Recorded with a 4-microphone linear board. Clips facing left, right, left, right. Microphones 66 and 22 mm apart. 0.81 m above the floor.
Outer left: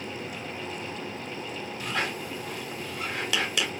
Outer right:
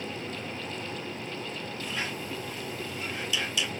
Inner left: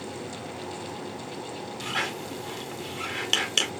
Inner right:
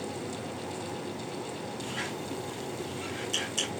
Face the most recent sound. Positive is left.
turn(degrees=65)  # may be behind; listen again after turning